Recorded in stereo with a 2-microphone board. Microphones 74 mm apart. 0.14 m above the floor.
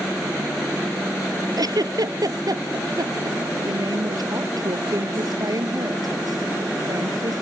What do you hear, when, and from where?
1.6 s a giggle: 65° right (ahead or behind)
3.6 s a woman speaking: 65° right (ahead or behind)